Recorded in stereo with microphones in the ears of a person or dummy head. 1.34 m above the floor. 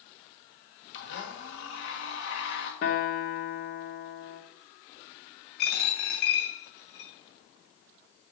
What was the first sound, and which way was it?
A blender, 75° left (ahead or behind).